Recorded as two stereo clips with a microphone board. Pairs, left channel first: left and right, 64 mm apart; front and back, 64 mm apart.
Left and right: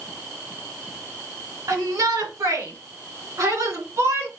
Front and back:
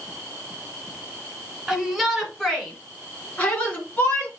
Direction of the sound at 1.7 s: 95° right.